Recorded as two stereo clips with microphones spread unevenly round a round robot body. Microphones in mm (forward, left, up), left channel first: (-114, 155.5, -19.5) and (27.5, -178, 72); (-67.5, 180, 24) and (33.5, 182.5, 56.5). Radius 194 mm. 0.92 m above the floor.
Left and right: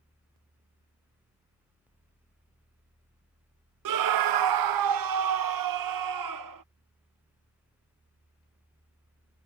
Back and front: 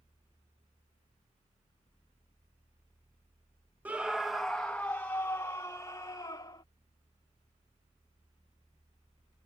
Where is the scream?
95° right; by 6.6 s 110° right.